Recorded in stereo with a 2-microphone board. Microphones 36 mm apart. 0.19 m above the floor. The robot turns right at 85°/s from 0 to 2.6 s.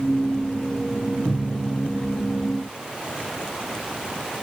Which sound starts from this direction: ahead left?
A cupboard door, at 1.2 s.